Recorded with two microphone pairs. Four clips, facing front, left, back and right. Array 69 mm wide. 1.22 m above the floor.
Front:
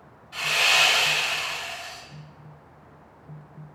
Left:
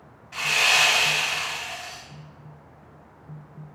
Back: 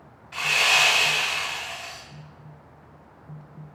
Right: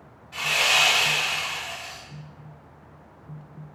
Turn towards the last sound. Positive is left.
turn(degrees=150)